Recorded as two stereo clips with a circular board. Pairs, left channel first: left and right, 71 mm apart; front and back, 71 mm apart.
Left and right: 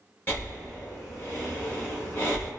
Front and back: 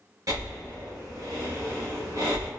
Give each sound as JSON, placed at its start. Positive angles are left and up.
{"t": 0.3, "sound": "breathing", "azimuth_deg": 145, "distance_m": 1.2}